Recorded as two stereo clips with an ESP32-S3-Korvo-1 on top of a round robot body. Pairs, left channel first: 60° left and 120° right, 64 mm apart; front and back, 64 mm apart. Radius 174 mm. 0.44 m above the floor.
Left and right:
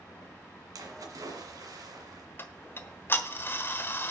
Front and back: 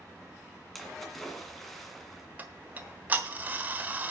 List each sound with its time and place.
0.8 s a splash: 90° right, 2 m
2.4 s ticking: 115° left, 1.3 m